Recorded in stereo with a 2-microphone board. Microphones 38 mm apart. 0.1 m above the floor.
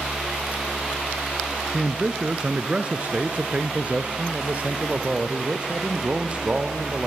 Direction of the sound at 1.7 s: 15° right (ahead or behind).